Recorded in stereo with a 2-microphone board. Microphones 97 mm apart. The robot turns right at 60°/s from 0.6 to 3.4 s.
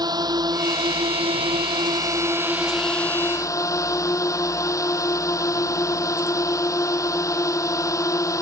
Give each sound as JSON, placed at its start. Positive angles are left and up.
{"t": 0.0, "sound": "a drone", "azimuth_deg": -130}